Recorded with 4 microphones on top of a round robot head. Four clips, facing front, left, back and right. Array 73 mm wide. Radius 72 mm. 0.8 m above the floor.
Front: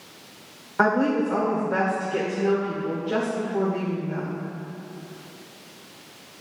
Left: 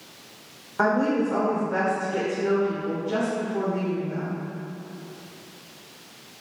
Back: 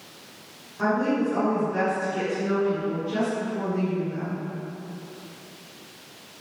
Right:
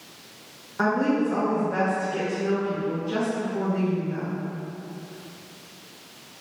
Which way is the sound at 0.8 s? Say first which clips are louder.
Left 1 dB, front 3 dB; 15° left.